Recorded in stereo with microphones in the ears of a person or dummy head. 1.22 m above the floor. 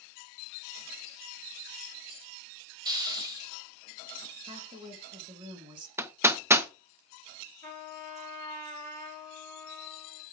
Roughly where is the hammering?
Centre.